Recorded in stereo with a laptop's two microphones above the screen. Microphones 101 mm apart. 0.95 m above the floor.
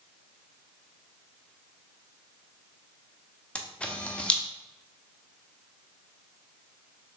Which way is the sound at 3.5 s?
10° left (ahead or behind).